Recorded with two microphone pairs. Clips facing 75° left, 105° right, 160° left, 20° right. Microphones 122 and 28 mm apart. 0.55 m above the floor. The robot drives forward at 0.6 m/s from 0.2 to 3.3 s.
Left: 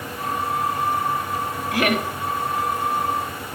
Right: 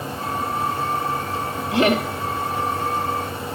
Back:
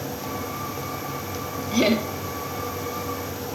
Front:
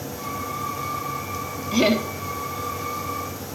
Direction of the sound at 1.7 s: 80° right.